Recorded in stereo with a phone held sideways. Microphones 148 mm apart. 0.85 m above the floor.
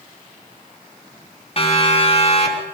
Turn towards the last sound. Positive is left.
turn(degrees=50)  # may be behind; listen again after turning